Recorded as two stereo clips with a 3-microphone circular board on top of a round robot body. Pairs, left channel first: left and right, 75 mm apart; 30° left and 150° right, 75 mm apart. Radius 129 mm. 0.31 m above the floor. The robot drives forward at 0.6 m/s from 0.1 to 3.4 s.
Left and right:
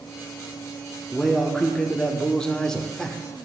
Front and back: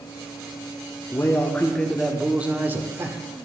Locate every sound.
1.1 s a man speaking: 15° left, 0.9 m; by 3.2 s 170° left, 1.1 m